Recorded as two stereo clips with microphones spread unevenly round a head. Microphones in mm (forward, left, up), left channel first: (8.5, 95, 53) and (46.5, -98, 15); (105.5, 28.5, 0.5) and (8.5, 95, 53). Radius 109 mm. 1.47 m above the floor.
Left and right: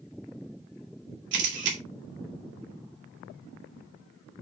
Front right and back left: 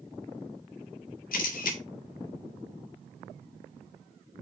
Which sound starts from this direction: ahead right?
A camera shutter, at 1.3 s.